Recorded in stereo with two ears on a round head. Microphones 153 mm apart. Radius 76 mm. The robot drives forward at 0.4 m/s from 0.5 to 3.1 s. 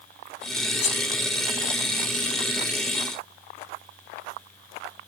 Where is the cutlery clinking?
45° left (ahead or behind), 0.6 m; by 1.0 s 40° left (ahead or behind), 0.7 m.